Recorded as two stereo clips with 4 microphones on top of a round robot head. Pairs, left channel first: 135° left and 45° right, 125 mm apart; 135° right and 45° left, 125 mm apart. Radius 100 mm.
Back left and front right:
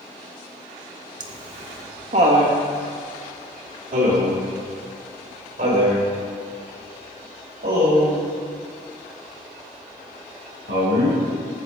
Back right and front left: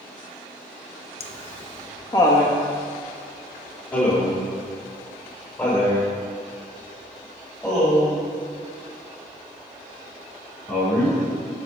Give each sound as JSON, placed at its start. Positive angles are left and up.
{"t": 1.2, "sound": "laughter", "azimuth_deg": -100, "distance_m": 1.2}